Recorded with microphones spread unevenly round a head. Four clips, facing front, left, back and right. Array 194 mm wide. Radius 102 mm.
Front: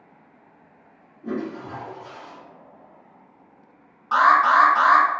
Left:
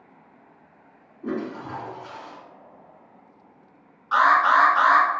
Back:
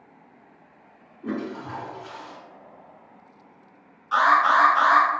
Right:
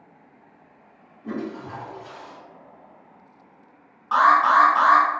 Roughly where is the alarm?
Ahead right.